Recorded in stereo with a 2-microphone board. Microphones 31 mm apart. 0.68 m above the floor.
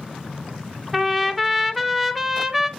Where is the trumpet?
Centre (ahead or behind), 0.5 m.